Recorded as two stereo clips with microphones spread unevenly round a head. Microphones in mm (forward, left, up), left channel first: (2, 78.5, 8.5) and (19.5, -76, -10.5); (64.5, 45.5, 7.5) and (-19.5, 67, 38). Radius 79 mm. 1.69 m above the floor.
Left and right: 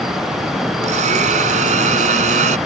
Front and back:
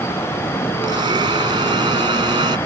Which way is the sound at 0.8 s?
135° right.